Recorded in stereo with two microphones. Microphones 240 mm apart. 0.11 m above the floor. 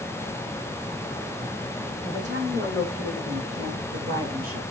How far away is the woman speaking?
About 6 m.